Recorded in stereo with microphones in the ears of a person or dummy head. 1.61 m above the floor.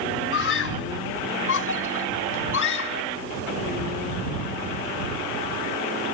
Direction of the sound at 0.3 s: 65° left (ahead or behind).